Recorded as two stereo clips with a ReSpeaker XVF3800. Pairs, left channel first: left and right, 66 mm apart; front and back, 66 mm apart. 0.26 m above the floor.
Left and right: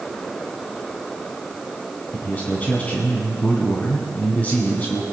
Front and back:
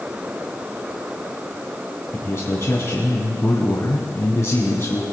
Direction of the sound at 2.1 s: 35° left.